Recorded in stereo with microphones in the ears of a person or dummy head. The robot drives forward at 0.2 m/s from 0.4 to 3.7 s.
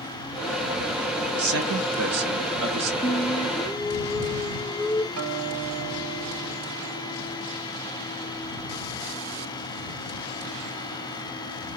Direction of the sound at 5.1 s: 80° right.